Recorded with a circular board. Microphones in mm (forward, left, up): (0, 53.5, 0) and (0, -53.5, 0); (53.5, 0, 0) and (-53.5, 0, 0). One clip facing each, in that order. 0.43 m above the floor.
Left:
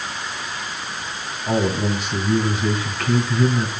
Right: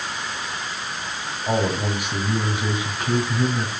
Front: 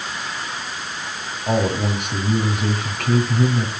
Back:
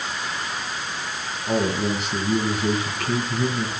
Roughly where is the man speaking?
Ahead.